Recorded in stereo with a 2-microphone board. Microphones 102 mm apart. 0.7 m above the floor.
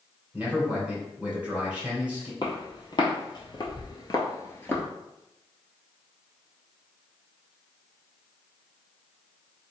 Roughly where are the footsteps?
Left.